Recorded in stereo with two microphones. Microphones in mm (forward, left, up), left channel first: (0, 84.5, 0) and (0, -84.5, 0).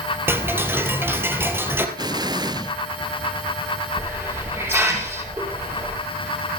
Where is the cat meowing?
I don't hear a cat meowing.